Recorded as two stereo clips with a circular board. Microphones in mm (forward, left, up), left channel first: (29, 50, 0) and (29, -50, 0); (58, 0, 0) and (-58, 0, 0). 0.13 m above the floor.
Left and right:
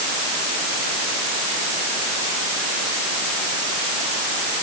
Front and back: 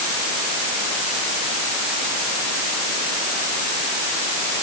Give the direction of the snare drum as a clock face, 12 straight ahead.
I don't hear a snare drum.